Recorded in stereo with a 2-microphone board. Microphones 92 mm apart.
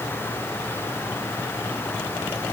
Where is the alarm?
I don't hear an alarm.